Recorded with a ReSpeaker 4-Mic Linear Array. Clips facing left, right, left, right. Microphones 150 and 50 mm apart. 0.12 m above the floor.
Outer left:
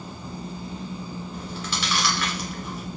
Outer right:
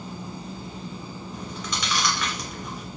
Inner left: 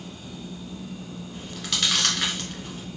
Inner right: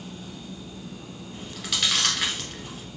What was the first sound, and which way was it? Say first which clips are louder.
Chewing: outer right 1 dB, even; 5° left (ahead or behind).